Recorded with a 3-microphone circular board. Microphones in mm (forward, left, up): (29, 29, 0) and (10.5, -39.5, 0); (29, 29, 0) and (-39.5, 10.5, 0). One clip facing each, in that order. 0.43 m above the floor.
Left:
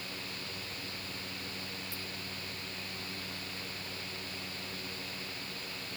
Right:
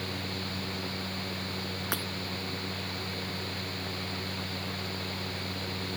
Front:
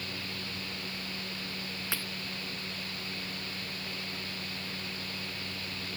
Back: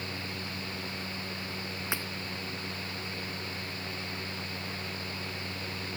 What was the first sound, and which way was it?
Breaking glass, 95° right.